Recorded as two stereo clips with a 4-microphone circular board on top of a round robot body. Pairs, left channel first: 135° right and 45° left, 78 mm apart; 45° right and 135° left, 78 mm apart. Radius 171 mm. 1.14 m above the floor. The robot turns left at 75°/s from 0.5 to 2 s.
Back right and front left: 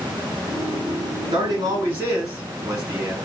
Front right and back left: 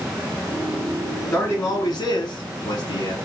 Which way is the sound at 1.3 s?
20° left.